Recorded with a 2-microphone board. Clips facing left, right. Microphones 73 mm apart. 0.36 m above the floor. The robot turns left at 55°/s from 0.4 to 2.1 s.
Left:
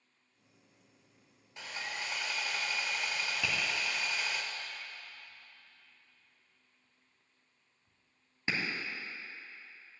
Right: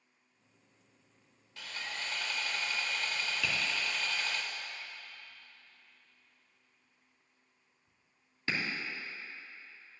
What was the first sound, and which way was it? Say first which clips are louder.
Sawing: left 1 dB; 20° left (ahead or behind).